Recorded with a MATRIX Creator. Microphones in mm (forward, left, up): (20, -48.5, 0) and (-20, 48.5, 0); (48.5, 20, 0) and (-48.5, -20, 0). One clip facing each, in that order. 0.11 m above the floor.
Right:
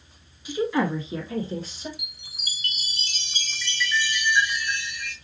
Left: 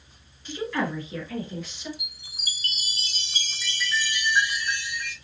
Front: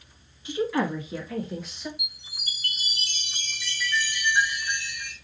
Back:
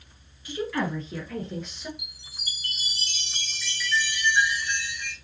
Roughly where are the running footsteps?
I don't hear running footsteps.